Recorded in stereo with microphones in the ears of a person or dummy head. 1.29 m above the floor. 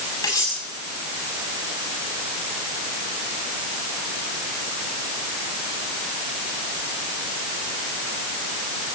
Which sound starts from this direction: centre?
Cutlery clinking, at 0.2 s.